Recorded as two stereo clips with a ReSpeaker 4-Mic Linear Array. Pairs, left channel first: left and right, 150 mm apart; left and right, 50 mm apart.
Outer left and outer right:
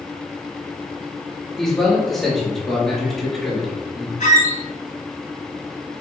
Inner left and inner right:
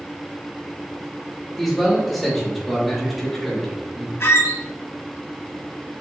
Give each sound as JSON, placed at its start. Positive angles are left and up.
{"t": 1.6, "sound": "a man speaking", "side_deg": 0, "distance_m": 3.0}
{"t": 4.2, "sound": "a squeak", "side_deg": 55, "distance_m": 2.0}